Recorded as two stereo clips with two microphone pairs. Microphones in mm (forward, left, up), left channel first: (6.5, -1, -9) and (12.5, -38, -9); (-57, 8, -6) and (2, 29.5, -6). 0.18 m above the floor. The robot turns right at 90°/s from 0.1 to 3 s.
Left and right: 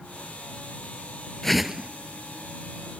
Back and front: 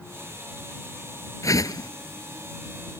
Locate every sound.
1.4 s a whoosh: 175° left; by 1.9 s 145° right